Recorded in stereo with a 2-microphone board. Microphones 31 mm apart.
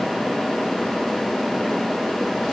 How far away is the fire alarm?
No fire alarm in this recording.